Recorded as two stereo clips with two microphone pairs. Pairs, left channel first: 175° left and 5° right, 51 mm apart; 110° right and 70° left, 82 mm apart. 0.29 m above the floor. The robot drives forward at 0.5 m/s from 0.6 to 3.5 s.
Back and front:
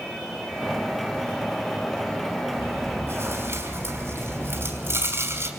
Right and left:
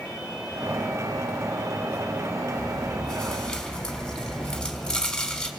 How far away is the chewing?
About 3.5 m.